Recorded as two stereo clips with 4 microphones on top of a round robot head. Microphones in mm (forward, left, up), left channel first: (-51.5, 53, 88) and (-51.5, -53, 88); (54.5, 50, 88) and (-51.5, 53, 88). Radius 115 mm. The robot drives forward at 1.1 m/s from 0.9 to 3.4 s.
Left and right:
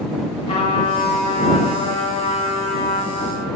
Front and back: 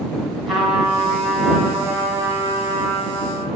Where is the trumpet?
90° left, 4 m; by 3.5 s 120° left, 5 m.